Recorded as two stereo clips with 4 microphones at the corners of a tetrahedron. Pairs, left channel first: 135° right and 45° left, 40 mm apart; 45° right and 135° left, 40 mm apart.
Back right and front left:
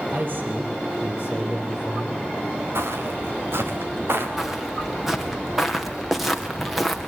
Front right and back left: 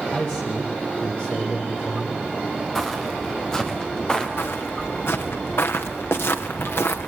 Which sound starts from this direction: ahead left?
Footsteps, at 2.8 s.